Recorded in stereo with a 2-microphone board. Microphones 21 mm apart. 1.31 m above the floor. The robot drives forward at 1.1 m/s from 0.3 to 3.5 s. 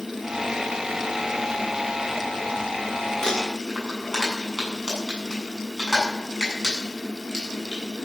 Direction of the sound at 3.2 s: 25° left (ahead or behind).